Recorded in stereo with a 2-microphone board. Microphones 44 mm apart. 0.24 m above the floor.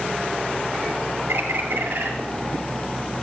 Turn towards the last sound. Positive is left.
turn(degrees=-75)  # may be behind; listen again after turning